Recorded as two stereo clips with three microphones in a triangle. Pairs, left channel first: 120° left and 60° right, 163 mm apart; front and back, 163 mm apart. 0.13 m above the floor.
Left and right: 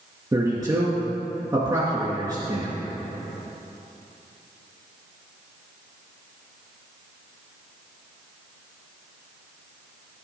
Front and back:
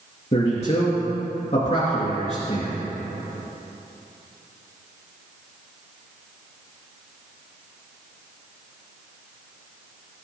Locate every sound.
0.3 s a man speaking: 5° right, 2.5 m